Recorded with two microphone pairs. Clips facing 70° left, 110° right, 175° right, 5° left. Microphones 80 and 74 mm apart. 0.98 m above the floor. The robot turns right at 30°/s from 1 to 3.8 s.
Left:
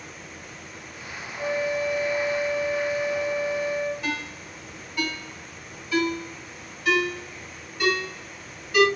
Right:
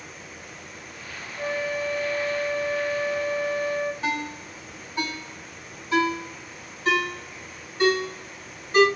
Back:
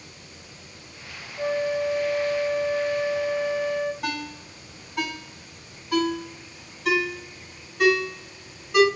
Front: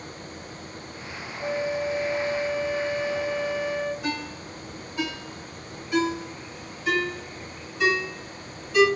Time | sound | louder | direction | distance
1.4 | a flute | left 2 dB, back 3 dB | 175° right | 0.6 m
4.0 | a ringtone | right 3 dB, even | 160° right | 1.8 m